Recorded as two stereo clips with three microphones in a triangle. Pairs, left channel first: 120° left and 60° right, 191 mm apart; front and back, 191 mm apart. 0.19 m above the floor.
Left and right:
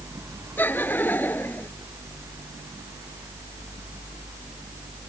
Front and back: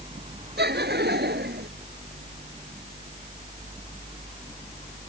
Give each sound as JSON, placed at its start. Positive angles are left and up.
{"t": 0.6, "sound": "laughter", "azimuth_deg": -160}